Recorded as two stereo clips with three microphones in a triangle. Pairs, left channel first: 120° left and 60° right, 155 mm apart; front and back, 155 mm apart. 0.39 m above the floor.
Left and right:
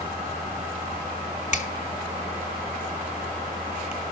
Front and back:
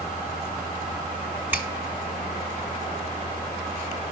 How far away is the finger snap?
About 1.5 m.